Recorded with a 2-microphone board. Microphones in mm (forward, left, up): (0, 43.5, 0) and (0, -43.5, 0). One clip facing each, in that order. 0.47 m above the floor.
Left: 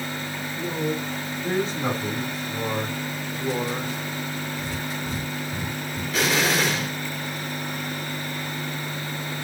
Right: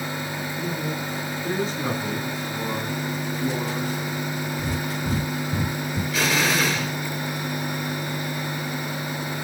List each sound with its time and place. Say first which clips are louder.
0.6 s a man speaking: left 4 dB; 15° left (ahead or behind), 4 m; by 2.3 s 40° left (ahead or behind), 3.5 m
2.5 s a man speaking: even; 45° left (ahead or behind), 2.5 m
4.6 s breathing: right 3 dB; 55° right (ahead or behind), 0.7 m
6.1 s an explosion: left 1 dB; 30° left (ahead or behind), 5 m